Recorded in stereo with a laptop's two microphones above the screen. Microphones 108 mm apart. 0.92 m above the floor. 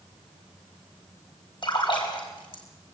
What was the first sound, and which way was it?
A splash, 45° left (ahead or behind).